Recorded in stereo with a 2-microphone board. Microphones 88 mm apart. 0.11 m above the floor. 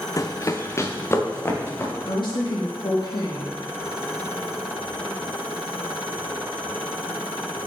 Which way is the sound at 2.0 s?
65° left (ahead or behind).